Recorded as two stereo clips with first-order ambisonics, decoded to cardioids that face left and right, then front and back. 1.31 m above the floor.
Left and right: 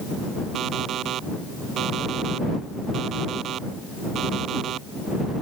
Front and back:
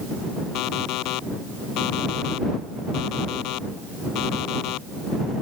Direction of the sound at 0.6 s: 35° right.